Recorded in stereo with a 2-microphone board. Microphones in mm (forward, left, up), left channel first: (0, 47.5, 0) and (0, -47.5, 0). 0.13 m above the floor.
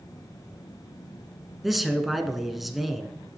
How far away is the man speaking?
About 1.1 m.